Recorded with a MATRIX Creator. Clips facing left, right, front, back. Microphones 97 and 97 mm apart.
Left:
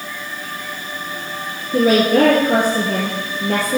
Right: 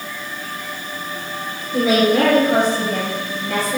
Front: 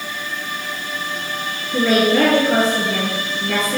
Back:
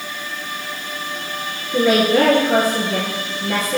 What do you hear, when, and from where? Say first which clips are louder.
1.7 s a woman speaking: left 2 dB, back 1 dB; 105° left, 2.0 m